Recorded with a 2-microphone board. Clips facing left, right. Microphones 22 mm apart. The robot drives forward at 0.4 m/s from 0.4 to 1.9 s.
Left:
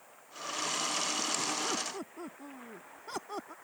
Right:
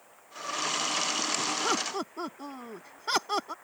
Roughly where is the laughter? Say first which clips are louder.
Right 6 dB; right.